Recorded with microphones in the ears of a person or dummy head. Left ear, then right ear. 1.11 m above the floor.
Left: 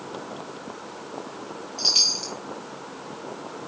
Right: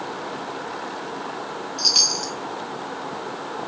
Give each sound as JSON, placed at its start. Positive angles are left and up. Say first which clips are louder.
{"t": 1.8, "sound": "a chime", "louder": "right 2 dB", "side_deg": -5, "distance_m": 0.8}